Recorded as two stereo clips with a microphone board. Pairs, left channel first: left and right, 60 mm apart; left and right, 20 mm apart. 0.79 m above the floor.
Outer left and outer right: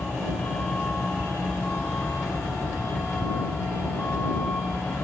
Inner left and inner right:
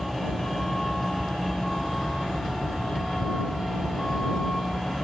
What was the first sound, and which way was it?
A vehicle, 20° left (ahead or behind).